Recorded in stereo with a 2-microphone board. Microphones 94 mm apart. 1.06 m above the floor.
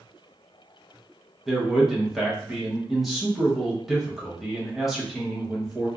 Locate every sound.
1.5 s a man speaking: centre (ahead or behind), 0.9 m